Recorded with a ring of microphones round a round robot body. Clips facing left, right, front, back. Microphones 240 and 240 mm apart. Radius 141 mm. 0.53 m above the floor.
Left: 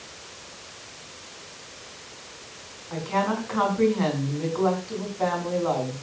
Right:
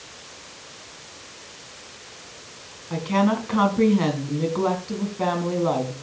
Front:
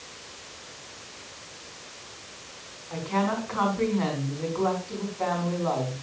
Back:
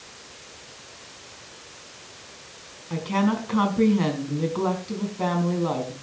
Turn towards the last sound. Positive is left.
turn(degrees=-135)